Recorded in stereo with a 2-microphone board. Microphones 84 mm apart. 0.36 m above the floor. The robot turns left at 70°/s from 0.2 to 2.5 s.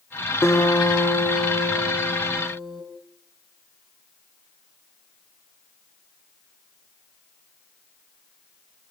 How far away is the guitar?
About 3.5 m.